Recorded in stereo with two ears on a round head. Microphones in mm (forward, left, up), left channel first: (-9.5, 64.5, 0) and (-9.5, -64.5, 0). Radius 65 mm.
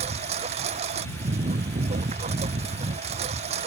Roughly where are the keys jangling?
No keys jangling in this recording.